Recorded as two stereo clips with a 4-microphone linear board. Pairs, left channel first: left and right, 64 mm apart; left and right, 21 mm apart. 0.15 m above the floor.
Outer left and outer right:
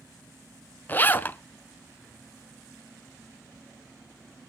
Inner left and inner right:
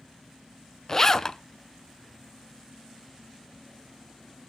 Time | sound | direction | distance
0.9 | a zipper | 25° left (ahead or behind) | 0.5 m